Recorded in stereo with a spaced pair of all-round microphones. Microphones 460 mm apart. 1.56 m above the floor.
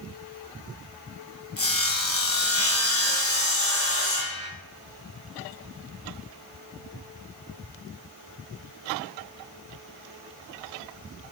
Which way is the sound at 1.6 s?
30° left (ahead or behind).